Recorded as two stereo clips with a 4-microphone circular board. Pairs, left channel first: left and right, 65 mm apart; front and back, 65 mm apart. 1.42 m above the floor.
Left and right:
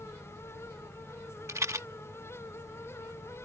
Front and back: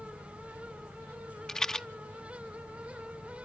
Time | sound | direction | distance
1.5 | a rattle | 80° right | ?